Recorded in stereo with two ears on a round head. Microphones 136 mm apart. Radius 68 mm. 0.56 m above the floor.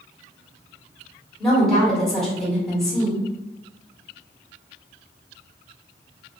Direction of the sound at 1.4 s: 5° left (ahead or behind).